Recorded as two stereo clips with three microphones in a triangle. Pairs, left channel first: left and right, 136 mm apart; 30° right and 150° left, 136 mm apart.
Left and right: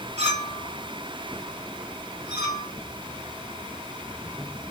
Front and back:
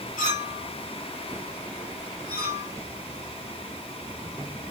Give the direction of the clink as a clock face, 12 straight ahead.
2 o'clock.